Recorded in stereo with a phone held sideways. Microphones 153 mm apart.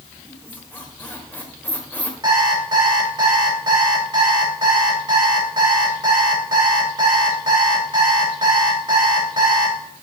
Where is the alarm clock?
30° right (ahead or behind), 3 m.